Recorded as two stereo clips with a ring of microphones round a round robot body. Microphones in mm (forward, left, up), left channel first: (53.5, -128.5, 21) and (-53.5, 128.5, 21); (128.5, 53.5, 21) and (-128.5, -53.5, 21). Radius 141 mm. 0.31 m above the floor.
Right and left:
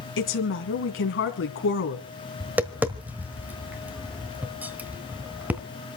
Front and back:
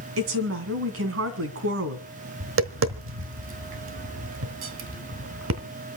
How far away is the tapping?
About 1.1 m.